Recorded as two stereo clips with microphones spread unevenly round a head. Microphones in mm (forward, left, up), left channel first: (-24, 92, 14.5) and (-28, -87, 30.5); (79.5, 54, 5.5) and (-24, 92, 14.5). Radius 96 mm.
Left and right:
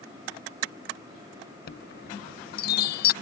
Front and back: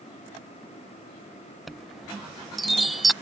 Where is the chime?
70° left.